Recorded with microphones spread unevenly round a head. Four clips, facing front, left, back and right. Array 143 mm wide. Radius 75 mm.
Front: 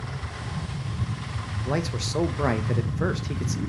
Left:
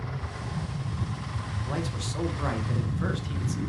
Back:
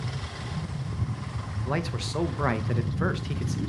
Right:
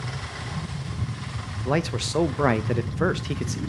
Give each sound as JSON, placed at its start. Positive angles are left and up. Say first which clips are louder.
{"t": 1.6, "sound": "a man speaking", "louder": "right 9 dB, front 2 dB", "azimuth_deg": -80, "distance_m": 0.8}